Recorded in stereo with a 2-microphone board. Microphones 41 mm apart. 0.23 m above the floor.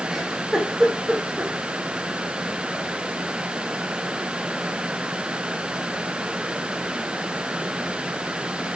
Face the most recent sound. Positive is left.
turn(degrees=-5)  # may be behind; listen again after turning